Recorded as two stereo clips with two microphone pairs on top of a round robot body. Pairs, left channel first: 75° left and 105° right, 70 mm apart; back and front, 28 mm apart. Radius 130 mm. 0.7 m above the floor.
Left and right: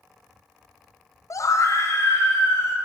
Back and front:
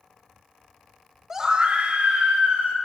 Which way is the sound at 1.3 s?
65° left.